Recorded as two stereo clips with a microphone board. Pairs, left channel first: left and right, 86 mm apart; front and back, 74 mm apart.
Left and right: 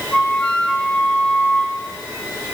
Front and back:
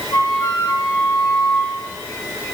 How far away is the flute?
About 2 m.